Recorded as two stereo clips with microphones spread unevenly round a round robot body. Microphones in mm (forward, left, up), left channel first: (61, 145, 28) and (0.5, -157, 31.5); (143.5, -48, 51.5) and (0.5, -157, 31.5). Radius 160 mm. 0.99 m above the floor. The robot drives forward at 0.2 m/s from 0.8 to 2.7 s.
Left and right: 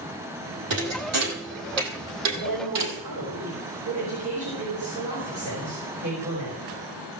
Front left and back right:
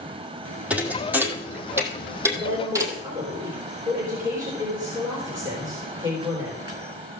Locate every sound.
0.7 s a thud: 60° right, 2.5 m; by 3.0 s 65° right, 2.5 m
2.3 s a woman speaking: 70° right, 4.5 m